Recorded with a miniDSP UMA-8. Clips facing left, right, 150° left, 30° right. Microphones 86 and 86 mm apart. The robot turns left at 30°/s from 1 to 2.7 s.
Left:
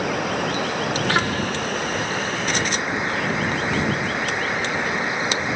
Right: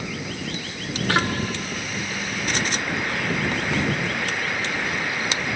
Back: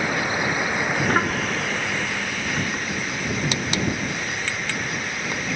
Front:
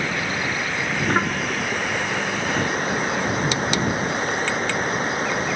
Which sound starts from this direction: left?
Running water, at 0.0 s.